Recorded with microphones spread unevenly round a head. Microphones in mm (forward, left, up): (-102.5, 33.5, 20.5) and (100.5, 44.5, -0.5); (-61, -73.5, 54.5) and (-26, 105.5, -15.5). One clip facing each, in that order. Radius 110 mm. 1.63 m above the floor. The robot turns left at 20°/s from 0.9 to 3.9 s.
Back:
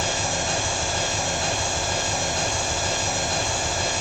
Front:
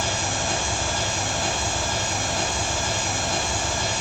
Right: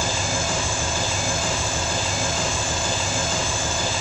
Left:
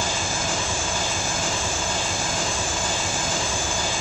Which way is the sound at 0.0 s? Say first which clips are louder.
Back 1 dB, right 2 dB; 125° right.